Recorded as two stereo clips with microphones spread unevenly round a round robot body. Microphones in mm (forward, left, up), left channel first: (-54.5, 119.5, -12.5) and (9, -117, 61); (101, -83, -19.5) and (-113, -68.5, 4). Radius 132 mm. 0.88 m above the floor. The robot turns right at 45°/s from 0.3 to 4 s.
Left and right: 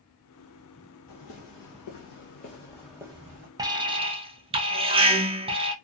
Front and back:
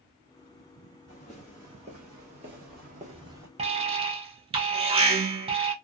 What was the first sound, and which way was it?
Footsteps, 70° left.